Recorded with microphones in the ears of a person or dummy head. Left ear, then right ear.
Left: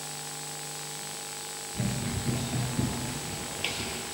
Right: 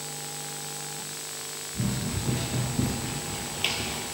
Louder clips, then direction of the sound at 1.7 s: Right 1 dB; 15° left (ahead or behind).